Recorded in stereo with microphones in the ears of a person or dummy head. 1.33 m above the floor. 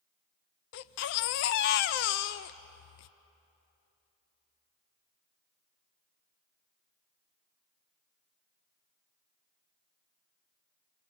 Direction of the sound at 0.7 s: 55° left (ahead or behind).